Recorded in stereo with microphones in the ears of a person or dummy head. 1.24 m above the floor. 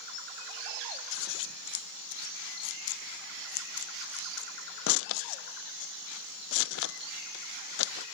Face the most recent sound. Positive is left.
turn(degrees=80)